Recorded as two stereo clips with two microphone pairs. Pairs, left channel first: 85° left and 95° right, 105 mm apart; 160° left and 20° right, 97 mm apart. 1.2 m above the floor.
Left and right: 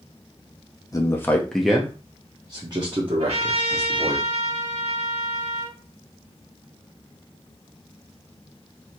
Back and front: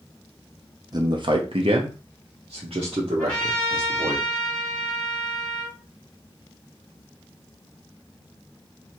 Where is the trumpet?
120° right, 2.0 m.